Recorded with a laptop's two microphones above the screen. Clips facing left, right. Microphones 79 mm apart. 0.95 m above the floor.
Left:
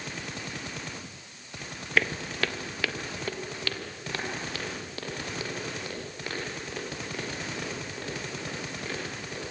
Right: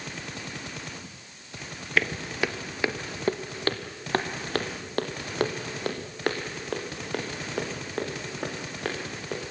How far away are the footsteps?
About 1.2 m.